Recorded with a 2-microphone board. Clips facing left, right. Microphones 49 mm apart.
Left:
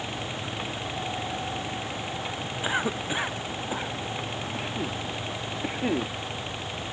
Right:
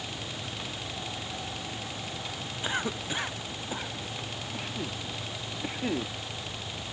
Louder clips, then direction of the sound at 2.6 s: Left 4 dB; 15° left (ahead or behind).